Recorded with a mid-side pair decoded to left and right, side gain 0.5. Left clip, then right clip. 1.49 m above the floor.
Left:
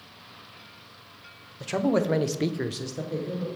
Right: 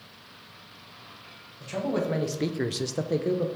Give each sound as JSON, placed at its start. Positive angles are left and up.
{"t": 1.6, "sound": "a man speaking", "azimuth_deg": 55, "distance_m": 1.2}